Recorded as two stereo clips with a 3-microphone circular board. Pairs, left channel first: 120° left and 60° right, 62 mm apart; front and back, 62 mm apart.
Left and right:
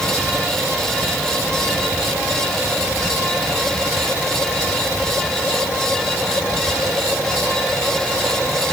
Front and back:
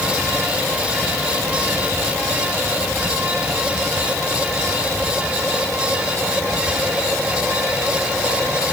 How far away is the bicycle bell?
I don't hear a bicycle bell.